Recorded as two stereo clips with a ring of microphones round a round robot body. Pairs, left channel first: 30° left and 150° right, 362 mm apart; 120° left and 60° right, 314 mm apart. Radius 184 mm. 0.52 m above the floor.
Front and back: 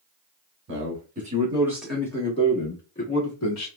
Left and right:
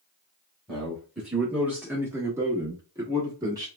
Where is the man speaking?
150° right, 1.2 m; by 3.7 s 15° left, 1.4 m.